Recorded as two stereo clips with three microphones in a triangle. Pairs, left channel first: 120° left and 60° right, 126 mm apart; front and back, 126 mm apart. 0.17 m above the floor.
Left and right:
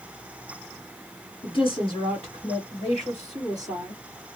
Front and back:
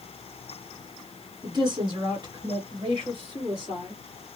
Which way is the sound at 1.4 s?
140° left.